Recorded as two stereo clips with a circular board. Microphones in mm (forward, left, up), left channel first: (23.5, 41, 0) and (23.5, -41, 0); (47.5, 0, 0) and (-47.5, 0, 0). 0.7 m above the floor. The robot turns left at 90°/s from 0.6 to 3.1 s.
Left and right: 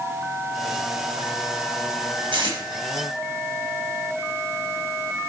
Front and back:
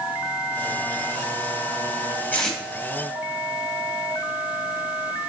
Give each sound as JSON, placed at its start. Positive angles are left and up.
{"t": 2.3, "sound": "tape being pulled", "azimuth_deg": -70, "distance_m": 0.9}